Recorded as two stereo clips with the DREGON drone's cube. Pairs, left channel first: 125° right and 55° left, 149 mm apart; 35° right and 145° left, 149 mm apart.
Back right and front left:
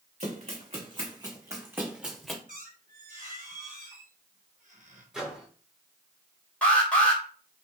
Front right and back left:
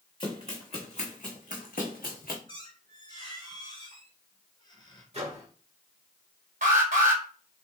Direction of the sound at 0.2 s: 20° left.